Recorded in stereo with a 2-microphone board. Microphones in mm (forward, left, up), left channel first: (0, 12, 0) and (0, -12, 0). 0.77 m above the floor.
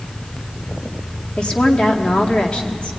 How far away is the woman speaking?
About 2.0 m.